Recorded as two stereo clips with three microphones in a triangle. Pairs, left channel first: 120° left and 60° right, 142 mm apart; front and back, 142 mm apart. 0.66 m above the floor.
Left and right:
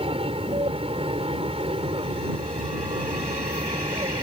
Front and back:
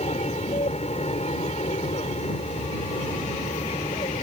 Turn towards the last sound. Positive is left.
turn(degrees=-25)